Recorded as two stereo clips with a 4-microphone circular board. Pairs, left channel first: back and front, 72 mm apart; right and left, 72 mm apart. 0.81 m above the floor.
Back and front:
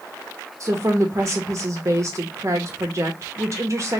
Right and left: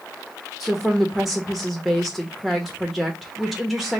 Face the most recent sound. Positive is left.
turn(degrees=5)